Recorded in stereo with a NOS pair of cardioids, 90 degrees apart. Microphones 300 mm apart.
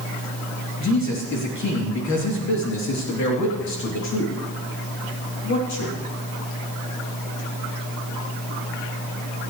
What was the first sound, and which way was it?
A man speaking, 65° left.